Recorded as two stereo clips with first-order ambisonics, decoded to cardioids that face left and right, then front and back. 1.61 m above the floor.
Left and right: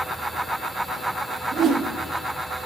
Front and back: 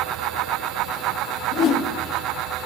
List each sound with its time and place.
1.5 s a whoosh: 35° right, 1.6 m